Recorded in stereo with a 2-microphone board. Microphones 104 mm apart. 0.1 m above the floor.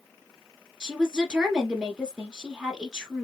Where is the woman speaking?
5° right (ahead or behind), 1.2 m.